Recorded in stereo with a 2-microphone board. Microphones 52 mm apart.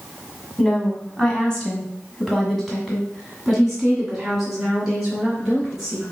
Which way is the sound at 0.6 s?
20° left (ahead or behind).